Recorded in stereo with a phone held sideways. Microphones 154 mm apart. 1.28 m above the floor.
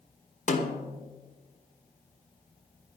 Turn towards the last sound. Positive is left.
turn(degrees=50)  # may be behind; listen again after turning